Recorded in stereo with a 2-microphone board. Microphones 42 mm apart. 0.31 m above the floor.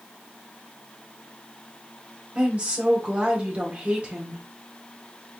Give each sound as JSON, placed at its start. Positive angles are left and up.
{"t": 2.4, "sound": "a woman speaking", "side_deg": -30, "distance_m": 1.9}